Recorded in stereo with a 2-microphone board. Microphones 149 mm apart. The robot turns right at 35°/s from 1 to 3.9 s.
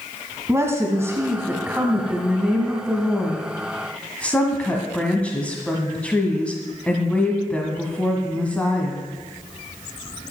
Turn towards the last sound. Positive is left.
turn(degrees=10)  # may be behind; listen again after turning